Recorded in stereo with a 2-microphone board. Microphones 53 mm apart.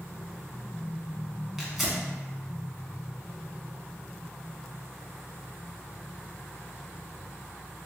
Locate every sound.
1.6 s tearing paper: 5° right (ahead or behind), 0.9 m